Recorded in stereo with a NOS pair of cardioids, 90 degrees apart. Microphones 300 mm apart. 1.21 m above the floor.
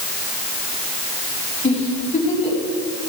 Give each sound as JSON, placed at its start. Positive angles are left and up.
{"t": 1.6, "sound": "a giggle", "azimuth_deg": 20, "distance_m": 5.5}